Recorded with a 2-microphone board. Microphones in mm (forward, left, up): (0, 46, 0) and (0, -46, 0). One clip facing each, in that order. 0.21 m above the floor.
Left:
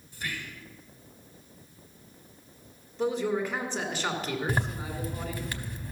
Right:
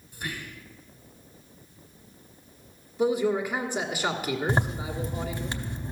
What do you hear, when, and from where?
0.1 s whispering: 15° right (ahead or behind), 1.3 m
3.0 s a man speaking: 10° right (ahead or behind), 1.6 m
4.5 s a zipper: 25° right (ahead or behind), 0.8 m